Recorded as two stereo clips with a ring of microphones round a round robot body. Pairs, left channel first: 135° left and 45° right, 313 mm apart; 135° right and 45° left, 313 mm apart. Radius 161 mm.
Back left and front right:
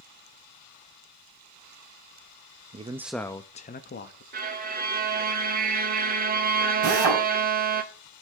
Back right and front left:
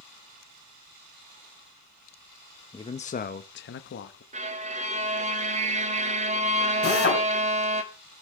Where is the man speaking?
75° right, 0.6 m; by 4.2 s straight behind, 0.9 m.